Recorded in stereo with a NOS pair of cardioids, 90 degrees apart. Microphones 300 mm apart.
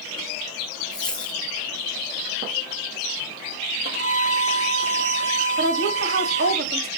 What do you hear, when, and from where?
0.9 s a dropped coin: 5° left, 2 m
3.9 s a violin: 50° right, 3 m
5.6 s a woman speaking: 45° right, 3.5 m